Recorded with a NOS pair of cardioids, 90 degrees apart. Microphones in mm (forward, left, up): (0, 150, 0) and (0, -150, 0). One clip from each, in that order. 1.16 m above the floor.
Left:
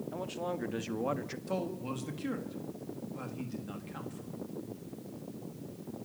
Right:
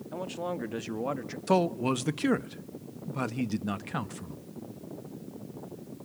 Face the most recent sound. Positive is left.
turn(degrees=-70)